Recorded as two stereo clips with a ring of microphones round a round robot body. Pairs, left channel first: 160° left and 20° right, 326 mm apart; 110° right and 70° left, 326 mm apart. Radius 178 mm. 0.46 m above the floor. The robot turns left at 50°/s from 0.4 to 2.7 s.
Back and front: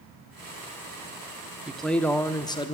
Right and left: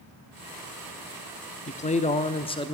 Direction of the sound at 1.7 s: 110° right.